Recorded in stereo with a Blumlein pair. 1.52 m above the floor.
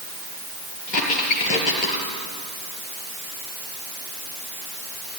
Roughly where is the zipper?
I don't hear a zipper.